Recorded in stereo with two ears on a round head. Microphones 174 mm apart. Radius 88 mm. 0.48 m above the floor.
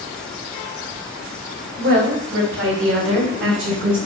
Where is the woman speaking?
65° right (ahead or behind), 3 m; by 4.0 s 70° right (ahead or behind), 5 m.